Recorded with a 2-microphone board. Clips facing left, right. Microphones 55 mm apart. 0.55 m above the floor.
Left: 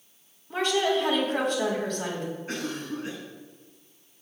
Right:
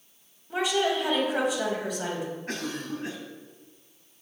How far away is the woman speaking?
About 3.5 m.